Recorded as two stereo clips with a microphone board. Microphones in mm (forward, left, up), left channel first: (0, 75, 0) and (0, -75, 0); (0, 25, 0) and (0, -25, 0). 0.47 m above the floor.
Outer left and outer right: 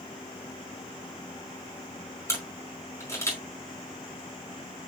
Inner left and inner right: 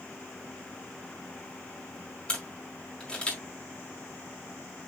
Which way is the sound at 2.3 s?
20° left (ahead or behind).